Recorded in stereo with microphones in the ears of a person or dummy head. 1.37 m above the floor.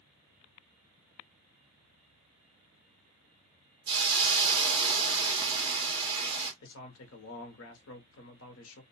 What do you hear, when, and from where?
3.9 s a hiss: 20° right (ahead or behind), 1.5 m
6.6 s a man speaking: 75° left (ahead or behind), 0.8 m